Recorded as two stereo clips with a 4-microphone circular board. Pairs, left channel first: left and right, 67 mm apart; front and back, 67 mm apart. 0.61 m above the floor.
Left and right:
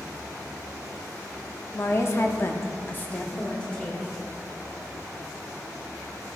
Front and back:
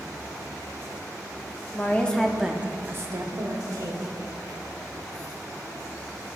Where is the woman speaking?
50° left, 0.9 m; by 4.1 s 170° left, 1.5 m.